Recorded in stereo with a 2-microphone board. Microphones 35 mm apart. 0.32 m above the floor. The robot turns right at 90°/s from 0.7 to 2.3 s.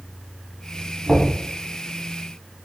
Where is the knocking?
5° left (ahead or behind), 1.3 m; by 1.3 s 15° right (ahead or behind), 1.3 m.